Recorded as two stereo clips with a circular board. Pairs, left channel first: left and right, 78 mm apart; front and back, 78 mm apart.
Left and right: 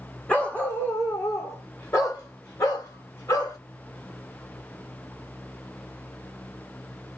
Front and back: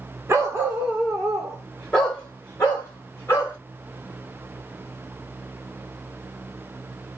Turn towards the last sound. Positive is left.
turn(degrees=55)